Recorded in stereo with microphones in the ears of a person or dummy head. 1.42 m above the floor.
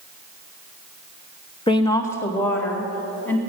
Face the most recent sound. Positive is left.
turn(degrees=5)  # may be behind; listen again after turning